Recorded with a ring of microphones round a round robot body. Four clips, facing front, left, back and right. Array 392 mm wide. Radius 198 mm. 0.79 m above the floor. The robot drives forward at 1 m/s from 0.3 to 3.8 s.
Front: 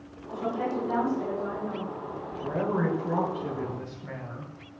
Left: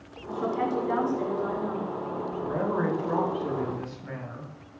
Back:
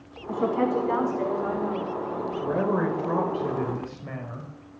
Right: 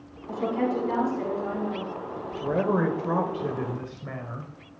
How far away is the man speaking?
About 4 m.